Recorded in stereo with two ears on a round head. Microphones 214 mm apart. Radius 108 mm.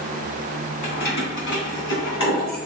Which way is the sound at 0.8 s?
35° left (ahead or behind).